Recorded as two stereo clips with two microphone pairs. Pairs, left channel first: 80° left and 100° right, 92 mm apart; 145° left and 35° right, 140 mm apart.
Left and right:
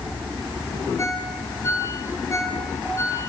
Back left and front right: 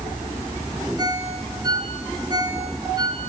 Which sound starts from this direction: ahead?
A ringtone, at 1.0 s.